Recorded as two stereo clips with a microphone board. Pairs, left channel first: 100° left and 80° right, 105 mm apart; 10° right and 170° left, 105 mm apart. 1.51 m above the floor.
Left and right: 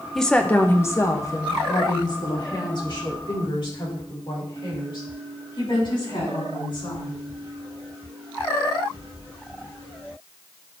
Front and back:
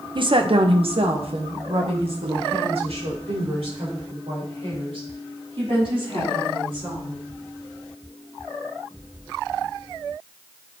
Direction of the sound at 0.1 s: 170° right.